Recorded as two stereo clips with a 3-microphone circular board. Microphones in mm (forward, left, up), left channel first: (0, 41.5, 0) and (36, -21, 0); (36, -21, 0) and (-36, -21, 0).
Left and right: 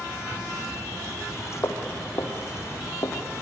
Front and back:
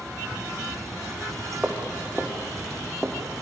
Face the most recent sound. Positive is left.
turn(degrees=90)